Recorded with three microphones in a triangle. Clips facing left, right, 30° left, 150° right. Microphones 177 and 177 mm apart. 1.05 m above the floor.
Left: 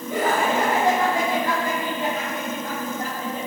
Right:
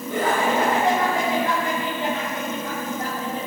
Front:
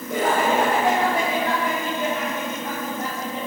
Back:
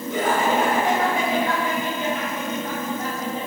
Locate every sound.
0.1 s laughter: 20° left, 1.9 m; by 3.5 s 40° left, 3.5 m